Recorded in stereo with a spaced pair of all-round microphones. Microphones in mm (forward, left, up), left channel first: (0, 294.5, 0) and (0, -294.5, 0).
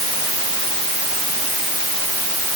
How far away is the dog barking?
I don't hear a dog barking.